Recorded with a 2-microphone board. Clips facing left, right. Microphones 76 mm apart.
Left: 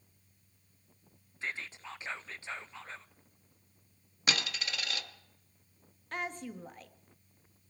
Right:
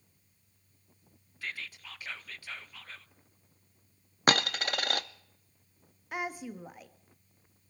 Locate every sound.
1.4 s whispering: 25° left (ahead or behind), 0.6 m
4.3 s a dropped coin: 50° right (ahead or behind), 0.7 m
6.1 s a woman speaking: 10° right (ahead or behind), 1.2 m